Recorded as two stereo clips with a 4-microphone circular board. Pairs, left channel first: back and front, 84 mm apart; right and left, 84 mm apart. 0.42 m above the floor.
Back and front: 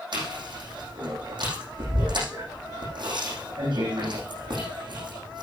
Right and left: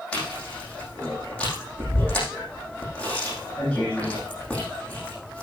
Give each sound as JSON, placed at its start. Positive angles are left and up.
{"t": 0.1, "sound": "chewing", "azimuth_deg": -15, "distance_m": 6.5}